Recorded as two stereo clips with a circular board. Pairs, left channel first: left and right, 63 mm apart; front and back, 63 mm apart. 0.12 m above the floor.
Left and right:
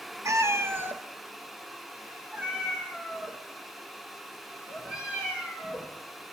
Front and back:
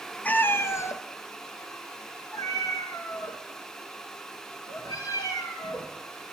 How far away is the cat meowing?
About 0.5 m.